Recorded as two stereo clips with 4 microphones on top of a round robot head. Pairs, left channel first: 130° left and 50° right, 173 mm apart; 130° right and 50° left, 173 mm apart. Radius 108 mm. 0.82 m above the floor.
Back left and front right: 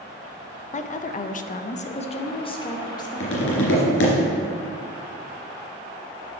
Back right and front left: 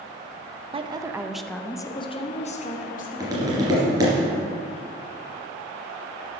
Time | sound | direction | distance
0.7 | a woman speaking | 100° left | 0.8 m
3.2 | tapping | 125° left | 3 m